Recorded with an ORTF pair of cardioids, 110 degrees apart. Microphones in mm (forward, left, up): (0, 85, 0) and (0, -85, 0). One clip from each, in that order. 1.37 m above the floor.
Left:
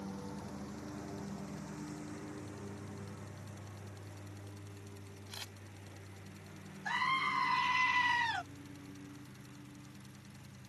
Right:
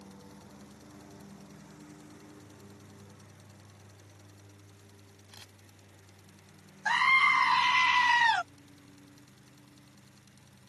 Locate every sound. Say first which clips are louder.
0.0 s a lawn mower: left 6 dB; 40° left; by 10.7 s 30° left
5.3 s a camera shutter: left 6 dB; 35° left
6.8 s a scream: right 10 dB; 50° right